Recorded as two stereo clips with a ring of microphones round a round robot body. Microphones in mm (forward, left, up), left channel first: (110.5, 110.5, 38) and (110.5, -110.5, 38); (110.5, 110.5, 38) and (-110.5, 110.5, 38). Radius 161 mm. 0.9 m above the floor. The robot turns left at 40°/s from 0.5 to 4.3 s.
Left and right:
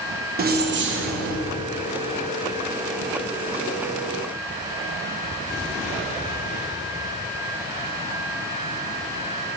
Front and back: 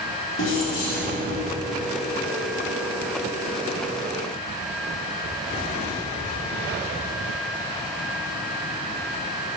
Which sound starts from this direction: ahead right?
Keys jangling, at 0.4 s.